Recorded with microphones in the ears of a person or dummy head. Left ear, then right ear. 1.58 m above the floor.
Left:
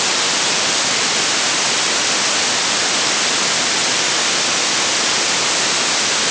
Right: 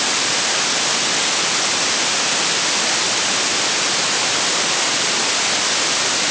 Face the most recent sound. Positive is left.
No sound to turn to.